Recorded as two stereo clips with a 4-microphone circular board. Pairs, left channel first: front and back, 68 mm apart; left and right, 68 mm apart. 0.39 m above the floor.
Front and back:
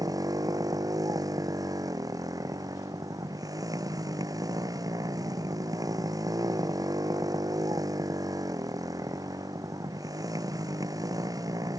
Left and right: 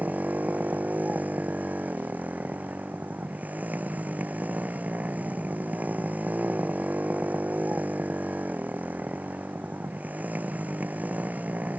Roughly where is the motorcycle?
Behind right.